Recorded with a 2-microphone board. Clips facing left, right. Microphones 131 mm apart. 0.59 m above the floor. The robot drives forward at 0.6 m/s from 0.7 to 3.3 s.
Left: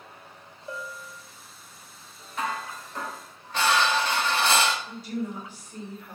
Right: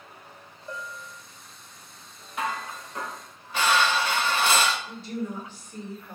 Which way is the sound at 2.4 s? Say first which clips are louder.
Even; 5° right (ahead or behind).